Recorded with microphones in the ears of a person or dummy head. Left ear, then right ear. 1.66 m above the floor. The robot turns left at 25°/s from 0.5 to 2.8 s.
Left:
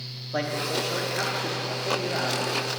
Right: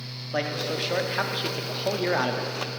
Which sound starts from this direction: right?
A man speaking, at 0.3 s.